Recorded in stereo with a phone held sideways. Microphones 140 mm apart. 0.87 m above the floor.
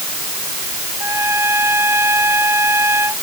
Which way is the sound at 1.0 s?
15° right (ahead or behind).